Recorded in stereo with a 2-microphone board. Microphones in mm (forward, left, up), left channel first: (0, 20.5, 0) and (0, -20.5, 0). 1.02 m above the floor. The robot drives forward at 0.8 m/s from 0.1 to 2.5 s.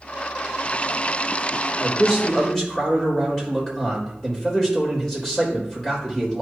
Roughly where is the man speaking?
Left.